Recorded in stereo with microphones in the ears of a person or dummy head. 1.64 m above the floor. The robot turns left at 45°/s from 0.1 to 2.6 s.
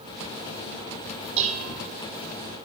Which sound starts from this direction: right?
Dishes clattering, at 1.4 s.